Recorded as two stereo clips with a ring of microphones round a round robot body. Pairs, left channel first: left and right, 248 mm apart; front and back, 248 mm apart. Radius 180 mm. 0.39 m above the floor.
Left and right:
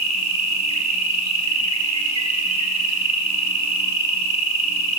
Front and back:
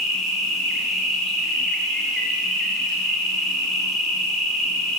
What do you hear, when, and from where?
0.0 s an insect: 90° right, 1.9 m